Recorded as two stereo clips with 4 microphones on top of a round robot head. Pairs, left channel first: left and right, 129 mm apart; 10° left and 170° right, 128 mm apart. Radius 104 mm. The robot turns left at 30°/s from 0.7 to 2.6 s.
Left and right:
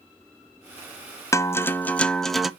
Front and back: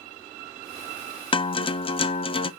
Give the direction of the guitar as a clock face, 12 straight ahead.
11 o'clock.